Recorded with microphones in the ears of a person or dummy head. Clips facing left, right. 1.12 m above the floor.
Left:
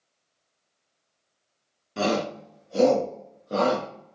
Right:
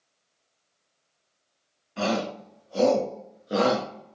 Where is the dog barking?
I don't hear a dog barking.